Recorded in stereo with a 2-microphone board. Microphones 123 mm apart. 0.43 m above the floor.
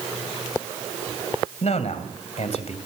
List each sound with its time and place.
1.6 s a man speaking: 60° left (ahead or behind), 3 m